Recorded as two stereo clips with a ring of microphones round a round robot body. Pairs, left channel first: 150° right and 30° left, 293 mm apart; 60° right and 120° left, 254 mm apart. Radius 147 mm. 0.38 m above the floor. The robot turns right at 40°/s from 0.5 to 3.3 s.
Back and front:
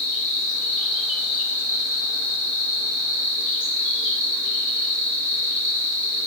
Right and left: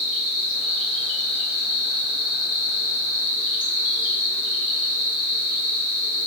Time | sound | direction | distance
0.0 | an insect | 120° right | 1.8 m